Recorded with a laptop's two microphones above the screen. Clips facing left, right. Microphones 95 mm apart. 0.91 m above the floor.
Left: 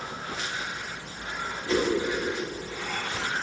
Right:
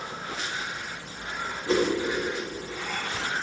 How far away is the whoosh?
About 1.8 m.